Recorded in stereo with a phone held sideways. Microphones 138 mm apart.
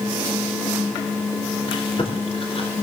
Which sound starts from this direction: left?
Chewing, at 1.7 s.